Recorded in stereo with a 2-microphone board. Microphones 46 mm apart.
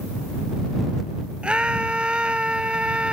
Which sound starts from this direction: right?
A scream, at 1.4 s.